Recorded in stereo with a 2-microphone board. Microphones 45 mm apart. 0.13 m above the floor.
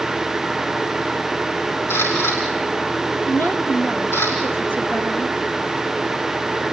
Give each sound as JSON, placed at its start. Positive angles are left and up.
{"t": 1.9, "sound": "a camera shutter", "side_deg": 65, "distance_m": 8.0}
{"t": 3.3, "sound": "a woman speaking", "side_deg": 45, "distance_m": 6.0}